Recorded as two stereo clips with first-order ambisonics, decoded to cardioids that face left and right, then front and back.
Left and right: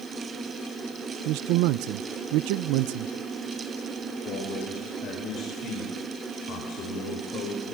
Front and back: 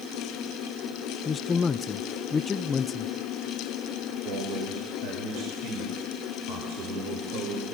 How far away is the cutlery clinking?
I don't hear cutlery clinking.